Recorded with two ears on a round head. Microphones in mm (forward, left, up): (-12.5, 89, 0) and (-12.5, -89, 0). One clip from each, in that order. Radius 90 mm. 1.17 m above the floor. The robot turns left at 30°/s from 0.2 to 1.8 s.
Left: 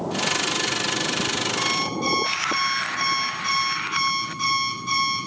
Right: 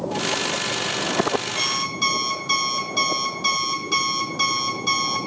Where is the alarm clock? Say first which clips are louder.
Right 1 dB; 70° right (ahead or behind), 6 m; by 5.3 s 65° right (ahead or behind), 6 m.